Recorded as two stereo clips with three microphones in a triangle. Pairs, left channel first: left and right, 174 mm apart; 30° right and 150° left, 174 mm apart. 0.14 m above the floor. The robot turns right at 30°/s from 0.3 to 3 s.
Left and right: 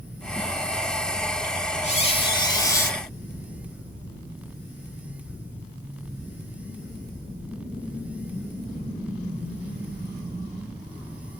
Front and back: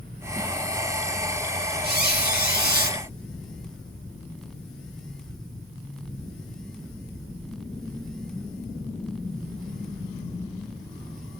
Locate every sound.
1.8 s a squeak: 135° left, 1.1 m; by 3.0 s 170° left, 1.1 m